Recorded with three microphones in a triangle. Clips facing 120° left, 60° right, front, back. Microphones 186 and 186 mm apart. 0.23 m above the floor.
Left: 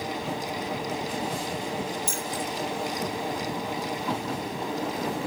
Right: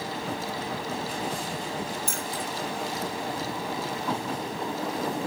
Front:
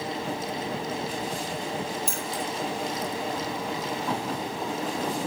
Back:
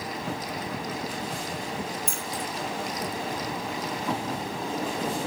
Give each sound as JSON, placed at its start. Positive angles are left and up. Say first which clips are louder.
{"t": 2.1, "sound": "keys jangling", "louder": "left 2 dB, front 2 dB", "azimuth_deg": -85, "distance_m": 4.0}